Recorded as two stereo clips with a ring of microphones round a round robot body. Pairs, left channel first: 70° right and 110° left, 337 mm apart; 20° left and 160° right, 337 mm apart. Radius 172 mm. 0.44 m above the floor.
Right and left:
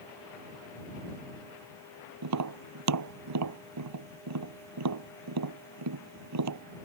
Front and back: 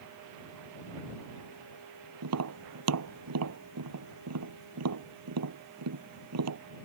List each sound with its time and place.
2.2 s tapping: 155° left